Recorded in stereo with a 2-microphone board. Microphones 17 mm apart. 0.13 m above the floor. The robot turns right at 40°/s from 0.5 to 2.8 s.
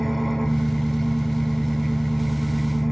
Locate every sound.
0.0 s an engine running: 100° left, 0.7 m; by 2.9 s 170° right, 0.7 m